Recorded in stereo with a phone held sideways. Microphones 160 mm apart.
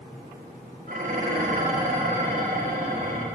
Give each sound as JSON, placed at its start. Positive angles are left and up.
{"t": 0.9, "sound": "dishes clattering", "side_deg": -65, "distance_m": 1.4}